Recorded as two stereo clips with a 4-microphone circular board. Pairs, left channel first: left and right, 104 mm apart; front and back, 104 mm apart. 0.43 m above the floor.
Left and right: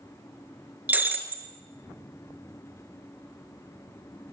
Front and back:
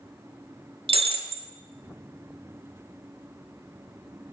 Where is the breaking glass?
165° right, 0.8 m.